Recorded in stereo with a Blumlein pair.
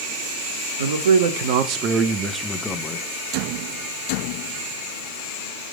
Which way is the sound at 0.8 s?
65° right.